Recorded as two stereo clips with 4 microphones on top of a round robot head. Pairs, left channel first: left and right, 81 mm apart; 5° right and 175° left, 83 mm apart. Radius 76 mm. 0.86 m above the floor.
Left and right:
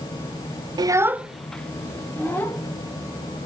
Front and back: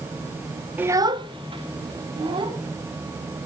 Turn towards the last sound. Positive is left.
turn(degrees=155)